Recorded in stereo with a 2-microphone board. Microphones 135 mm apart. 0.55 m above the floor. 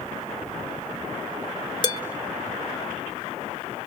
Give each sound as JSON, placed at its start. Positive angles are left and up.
{"t": 1.8, "sound": "dishes clattering", "side_deg": 30, "distance_m": 1.2}